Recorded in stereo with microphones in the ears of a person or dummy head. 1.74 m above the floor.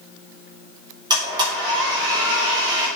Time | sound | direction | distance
1.1 | a blender | 20° right (ahead or behind) | 4 m